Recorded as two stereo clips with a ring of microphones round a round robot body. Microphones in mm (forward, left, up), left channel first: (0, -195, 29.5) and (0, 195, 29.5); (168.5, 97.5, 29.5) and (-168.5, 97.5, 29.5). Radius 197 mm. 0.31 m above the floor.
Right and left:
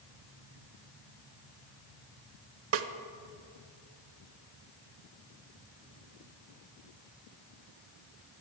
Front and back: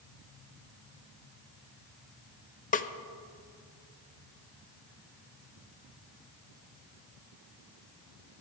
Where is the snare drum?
55° left, 0.6 m.